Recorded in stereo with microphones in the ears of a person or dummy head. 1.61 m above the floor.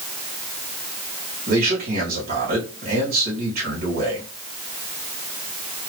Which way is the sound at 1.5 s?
50° right (ahead or behind).